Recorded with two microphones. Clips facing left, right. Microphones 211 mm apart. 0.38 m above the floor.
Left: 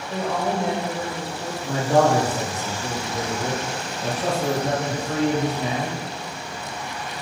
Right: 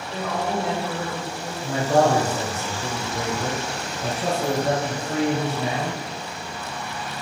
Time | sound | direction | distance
0.1 | a woman speaking | 40° left (ahead or behind) | 1.9 m
1.6 | a man speaking | centre (ahead or behind) | 1.5 m